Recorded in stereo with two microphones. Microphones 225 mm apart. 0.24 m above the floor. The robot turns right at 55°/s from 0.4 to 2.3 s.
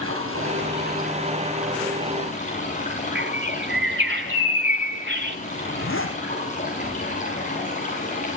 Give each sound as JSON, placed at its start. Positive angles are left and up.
{"t": 0.0, "sound": "running water", "azimuth_deg": -70, "distance_m": 8.5}
{"t": 3.1, "sound": "a bird", "side_deg": -55, "distance_m": 2.0}
{"t": 5.5, "sound": "a zipper", "side_deg": 70, "distance_m": 5.0}